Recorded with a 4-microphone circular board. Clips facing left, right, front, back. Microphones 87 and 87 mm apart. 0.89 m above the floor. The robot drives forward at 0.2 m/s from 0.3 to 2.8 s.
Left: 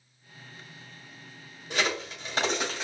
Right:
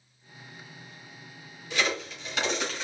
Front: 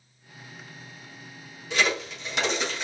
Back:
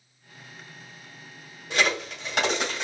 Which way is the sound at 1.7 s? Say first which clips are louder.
Even, back 1 dB; 140° left.